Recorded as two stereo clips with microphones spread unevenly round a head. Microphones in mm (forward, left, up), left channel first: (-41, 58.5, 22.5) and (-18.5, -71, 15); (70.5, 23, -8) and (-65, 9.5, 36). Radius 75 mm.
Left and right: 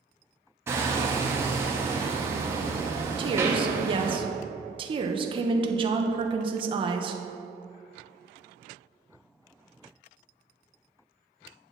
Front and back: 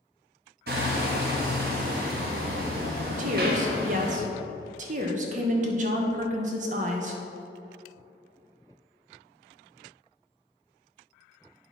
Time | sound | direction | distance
0.7 | hammering | 150° right | 1.4 m
3.2 | a woman speaking | 130° right | 1.1 m